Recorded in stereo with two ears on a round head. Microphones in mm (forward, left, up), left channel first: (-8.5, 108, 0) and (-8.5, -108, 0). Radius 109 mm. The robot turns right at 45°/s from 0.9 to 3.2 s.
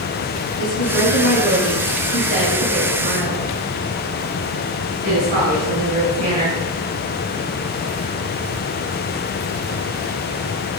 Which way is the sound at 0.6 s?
115° left.